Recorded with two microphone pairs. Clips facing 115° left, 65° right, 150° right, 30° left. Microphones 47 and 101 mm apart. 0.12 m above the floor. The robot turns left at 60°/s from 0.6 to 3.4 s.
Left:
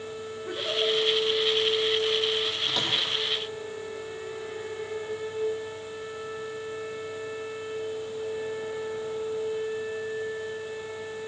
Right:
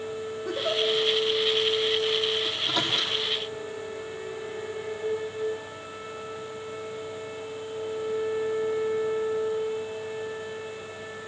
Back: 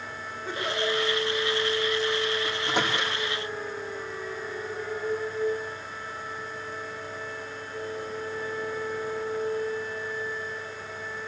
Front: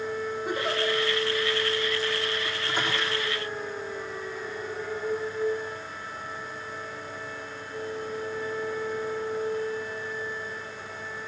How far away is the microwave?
About 4.5 m.